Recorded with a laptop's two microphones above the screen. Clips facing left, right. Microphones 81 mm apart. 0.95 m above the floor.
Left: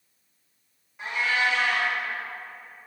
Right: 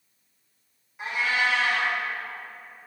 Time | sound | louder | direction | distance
1.0 | a cat meowing | even | 5° right (ahead or behind) | 1.6 m